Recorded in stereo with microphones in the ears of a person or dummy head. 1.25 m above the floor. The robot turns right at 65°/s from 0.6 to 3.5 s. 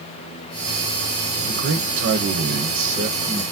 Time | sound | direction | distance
1.4 | a man speaking | 135° right | 0.9 m